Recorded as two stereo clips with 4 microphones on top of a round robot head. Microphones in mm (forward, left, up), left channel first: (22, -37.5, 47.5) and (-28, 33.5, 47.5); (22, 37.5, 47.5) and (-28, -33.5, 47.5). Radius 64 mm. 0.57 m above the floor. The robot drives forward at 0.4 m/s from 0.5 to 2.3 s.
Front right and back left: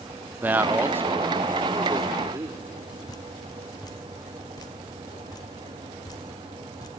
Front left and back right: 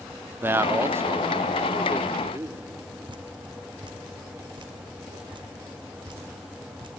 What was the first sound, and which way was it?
A man speaking, 175° right.